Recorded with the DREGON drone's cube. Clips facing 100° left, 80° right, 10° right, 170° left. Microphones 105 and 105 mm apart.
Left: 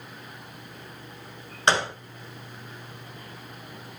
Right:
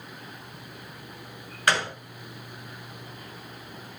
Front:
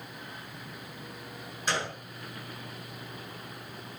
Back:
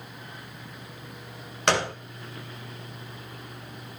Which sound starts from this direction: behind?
A gunshot, at 1.7 s.